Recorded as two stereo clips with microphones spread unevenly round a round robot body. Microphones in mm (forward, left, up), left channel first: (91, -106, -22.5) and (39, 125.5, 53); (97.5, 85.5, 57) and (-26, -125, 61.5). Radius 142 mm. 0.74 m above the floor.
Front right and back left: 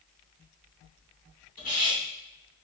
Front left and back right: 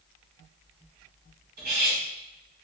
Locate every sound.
1.6 s cutlery clinking: 105° right, 3 m